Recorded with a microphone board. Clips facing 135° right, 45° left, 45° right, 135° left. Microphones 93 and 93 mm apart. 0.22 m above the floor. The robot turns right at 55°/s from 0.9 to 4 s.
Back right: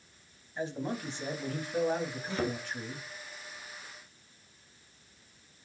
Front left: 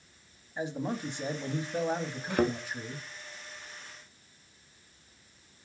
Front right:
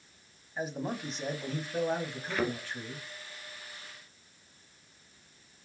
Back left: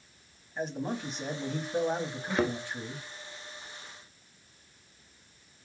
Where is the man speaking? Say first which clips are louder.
Front left 1 dB, back left 1 dB; 25° left, 1.2 m; by 3.1 s 145° left, 1.2 m.